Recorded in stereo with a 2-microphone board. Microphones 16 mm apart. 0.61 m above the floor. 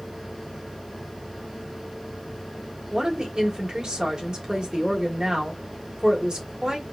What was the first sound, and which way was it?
A woman speaking, 60° right (ahead or behind).